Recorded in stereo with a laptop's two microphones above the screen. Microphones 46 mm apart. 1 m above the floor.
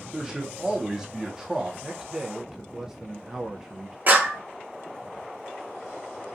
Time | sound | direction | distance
0.1 | a man speaking | 10° right (ahead or behind) | 0.8 m
1.8 | a man speaking | 5° right (ahead or behind) | 0.7 m
4.1 | a clap | 40° right (ahead or behind) | 1.1 m